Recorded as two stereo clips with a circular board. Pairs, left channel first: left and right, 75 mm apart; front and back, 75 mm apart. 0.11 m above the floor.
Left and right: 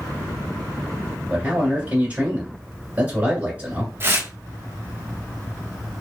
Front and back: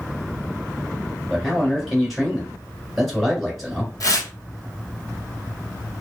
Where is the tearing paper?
35° right, 0.8 m.